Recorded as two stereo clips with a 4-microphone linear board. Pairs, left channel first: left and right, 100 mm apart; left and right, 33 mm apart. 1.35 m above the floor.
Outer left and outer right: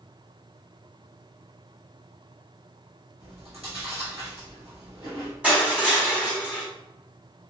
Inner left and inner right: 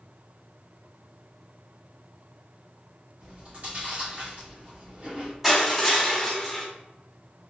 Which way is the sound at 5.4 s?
15° right (ahead or behind).